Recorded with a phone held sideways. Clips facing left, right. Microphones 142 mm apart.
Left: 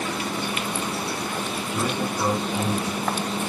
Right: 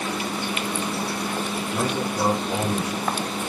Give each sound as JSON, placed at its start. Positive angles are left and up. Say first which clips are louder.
{"t": 1.7, "sound": "a man speaking", "louder": "right 1 dB", "side_deg": -70, "distance_m": 7.5}